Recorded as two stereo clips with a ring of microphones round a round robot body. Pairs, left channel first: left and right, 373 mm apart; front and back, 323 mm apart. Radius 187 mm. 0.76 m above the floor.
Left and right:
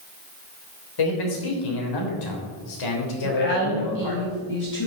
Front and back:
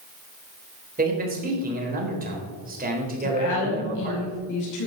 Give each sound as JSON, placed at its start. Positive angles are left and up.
{"t": 1.0, "sound": "a man speaking", "azimuth_deg": 115, "distance_m": 4.0}
{"t": 3.2, "sound": "a woman speaking", "azimuth_deg": 30, "distance_m": 5.5}